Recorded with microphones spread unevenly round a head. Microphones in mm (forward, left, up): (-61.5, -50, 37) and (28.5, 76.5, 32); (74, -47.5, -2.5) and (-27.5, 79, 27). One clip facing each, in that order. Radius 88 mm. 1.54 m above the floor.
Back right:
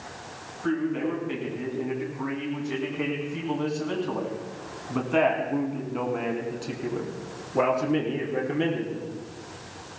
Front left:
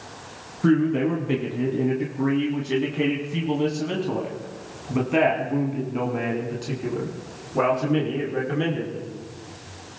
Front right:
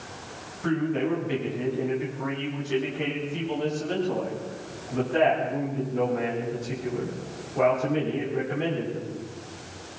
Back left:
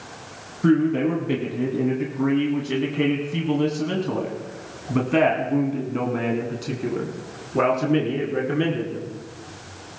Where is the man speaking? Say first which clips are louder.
Front left 7 dB, back left 7 dB; 85° left, 3 m; by 9.1 s 160° left, 4 m.